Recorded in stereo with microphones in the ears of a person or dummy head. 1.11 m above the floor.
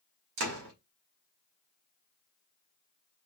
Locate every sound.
0.4 s a door slam: 80° right, 2 m